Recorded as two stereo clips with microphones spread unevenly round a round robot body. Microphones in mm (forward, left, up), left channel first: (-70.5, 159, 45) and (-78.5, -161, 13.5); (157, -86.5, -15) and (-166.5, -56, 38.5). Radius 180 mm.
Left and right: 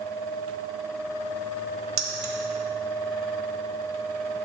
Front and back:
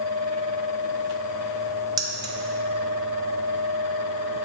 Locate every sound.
2.0 s keys jangling: 105° right, 1.3 m